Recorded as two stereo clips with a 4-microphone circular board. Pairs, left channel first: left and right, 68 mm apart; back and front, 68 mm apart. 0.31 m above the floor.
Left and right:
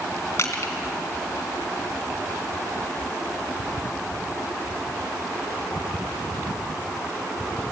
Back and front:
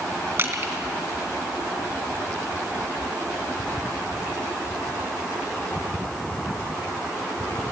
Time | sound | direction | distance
0.4 | crushing | 45° left | 3 m